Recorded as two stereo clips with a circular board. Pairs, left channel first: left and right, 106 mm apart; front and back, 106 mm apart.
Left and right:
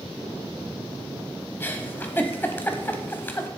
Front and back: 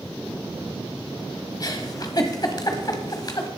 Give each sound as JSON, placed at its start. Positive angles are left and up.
{"t": 1.6, "sound": "a giggle", "azimuth_deg": 30, "distance_m": 1.2}